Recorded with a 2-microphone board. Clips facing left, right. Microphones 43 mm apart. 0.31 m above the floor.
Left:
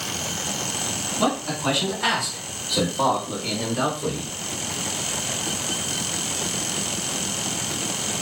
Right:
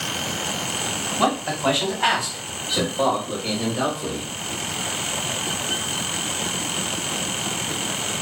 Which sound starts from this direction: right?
A man speaking, at 1.2 s.